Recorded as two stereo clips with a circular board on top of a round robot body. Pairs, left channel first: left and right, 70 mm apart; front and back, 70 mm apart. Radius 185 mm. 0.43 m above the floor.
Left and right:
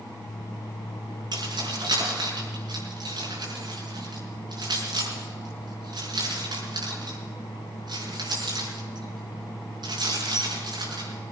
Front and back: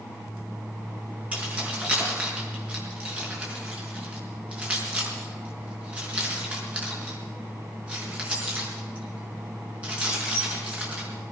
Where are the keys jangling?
105° right, 5 m.